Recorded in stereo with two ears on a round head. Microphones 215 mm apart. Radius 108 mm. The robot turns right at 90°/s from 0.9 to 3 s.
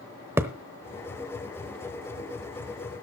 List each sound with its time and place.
0.4 s a thud: 10° right (ahead or behind), 0.9 m